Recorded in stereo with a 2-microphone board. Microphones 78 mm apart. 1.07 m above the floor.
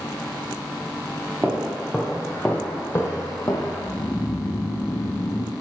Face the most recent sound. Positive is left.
turn(degrees=35)  # may be behind; listen again after turning